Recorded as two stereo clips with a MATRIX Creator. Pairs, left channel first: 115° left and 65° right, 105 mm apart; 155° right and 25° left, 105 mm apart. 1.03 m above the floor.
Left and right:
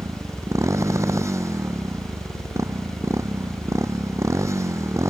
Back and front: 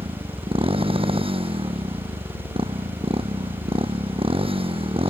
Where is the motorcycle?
5° right.